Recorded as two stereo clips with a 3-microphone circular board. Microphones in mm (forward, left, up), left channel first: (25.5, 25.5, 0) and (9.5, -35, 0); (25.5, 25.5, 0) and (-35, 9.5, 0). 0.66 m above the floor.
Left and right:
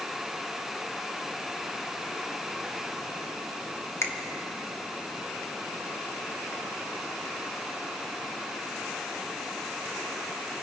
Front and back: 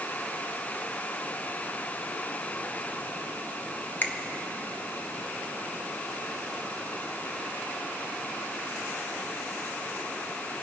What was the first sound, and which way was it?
A finger snap, 60° left.